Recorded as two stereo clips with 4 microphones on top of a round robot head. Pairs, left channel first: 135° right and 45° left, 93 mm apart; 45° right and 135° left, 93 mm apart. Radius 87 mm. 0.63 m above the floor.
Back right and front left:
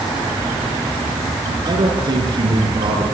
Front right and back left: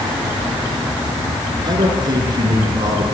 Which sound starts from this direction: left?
A man speaking, at 1.6 s.